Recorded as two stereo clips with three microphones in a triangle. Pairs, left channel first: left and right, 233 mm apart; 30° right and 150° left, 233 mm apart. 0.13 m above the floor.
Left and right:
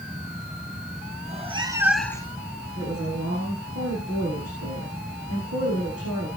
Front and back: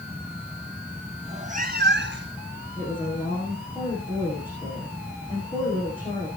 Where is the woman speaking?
100° right, 7 m.